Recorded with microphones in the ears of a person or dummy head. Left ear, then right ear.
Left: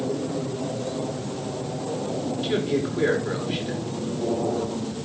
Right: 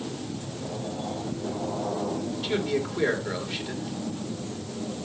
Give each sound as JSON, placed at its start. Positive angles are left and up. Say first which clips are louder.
{"t": 2.4, "sound": "a man speaking", "louder": "left 2 dB", "side_deg": -10, "distance_m": 4.5}